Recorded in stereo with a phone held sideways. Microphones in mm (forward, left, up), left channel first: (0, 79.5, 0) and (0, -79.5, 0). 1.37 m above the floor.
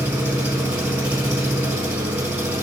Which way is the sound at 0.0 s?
10° right (ahead or behind).